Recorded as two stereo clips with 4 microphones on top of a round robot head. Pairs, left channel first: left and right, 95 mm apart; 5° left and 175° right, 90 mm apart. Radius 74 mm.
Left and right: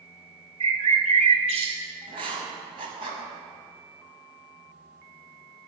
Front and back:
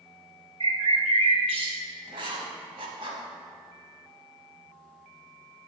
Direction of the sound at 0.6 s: 130° right.